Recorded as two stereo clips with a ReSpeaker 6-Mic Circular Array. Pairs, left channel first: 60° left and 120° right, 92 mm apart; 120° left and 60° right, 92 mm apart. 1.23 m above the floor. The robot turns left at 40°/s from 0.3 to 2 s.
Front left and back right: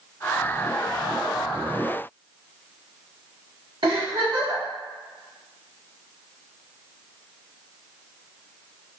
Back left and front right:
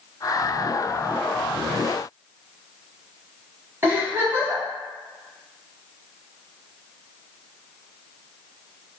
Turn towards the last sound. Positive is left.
turn(degrees=-120)